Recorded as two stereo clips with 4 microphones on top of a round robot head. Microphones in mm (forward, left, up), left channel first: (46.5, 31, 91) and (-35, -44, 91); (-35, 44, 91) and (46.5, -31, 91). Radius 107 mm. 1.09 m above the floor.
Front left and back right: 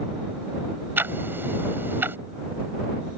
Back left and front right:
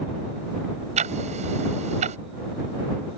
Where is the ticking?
65° right.